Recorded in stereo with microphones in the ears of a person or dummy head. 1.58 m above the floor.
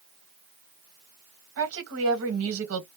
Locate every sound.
1.6 s a woman speaking: 70° right (ahead or behind), 1.3 m